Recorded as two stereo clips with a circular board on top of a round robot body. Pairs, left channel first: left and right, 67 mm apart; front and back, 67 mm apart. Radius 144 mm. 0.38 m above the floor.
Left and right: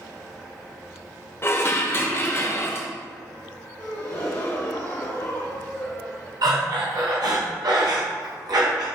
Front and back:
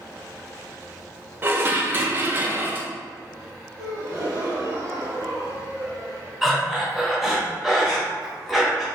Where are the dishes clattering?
130° left, 0.8 m.